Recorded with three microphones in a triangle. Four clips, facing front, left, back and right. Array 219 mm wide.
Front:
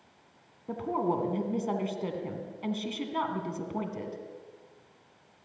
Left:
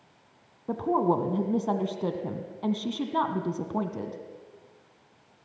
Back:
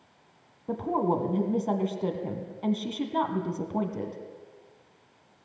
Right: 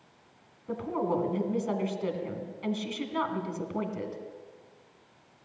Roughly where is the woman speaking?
Behind left.